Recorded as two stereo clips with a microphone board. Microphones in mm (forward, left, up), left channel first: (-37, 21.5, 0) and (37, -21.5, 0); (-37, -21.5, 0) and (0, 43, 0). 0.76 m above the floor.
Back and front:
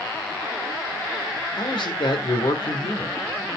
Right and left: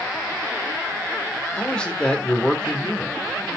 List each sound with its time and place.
1.6 s a man speaking: 160° left, 1.8 m